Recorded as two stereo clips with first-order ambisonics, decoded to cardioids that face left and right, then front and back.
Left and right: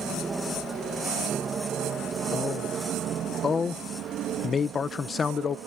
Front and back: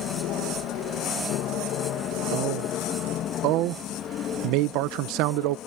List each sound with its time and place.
0.0 s an aircraft: 20° right; by 5.7 s 55° right
2.3 s a man speaking: 160° left